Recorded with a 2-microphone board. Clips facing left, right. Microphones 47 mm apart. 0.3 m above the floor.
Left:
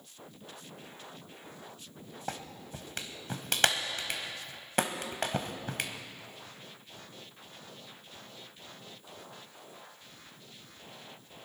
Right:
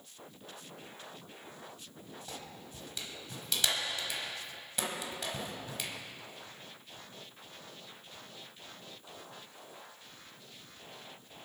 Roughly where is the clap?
Left.